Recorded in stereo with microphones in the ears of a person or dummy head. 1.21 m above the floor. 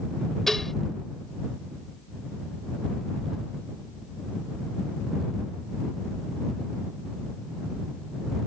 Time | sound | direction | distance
0.5 | dishes clattering | 5° left (ahead or behind) | ?